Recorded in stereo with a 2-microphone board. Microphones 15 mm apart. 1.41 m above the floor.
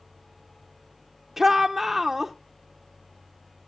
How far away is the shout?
About 0.8 m.